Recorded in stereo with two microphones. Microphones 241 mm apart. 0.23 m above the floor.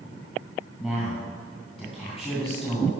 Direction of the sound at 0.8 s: Centre (ahead or behind).